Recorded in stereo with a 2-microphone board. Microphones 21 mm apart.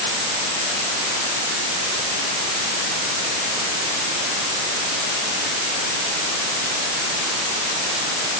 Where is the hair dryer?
No hair dryer in this recording.